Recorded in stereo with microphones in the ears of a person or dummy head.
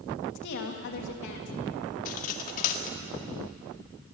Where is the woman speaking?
60° left (ahead or behind), 2.5 m.